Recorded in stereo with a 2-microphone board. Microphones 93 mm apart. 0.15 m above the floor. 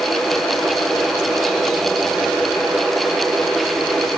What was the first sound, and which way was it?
Only background noise.